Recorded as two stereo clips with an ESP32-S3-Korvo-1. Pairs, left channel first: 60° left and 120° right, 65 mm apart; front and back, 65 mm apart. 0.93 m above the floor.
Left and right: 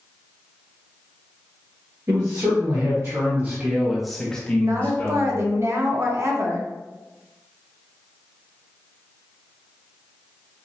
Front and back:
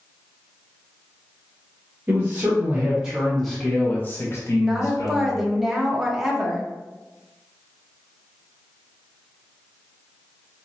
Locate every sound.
2.1 s a man speaking: 125° right, 1.4 m; by 5.5 s 15° left, 1.4 m
4.6 s a woman speaking: 100° right, 1.0 m